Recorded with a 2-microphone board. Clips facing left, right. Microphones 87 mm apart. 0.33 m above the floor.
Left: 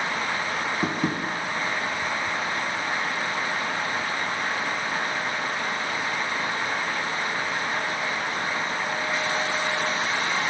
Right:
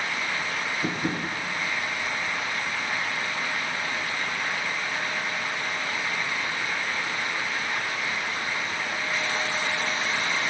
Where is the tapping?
60° left (ahead or behind), 9 m.